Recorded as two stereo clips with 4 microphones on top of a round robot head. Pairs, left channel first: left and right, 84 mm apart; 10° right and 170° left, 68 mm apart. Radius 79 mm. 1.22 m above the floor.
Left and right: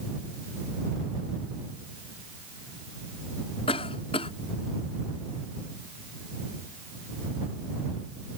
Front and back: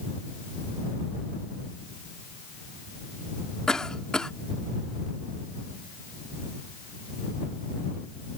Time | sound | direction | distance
3.7 | a cough | 70° left | ?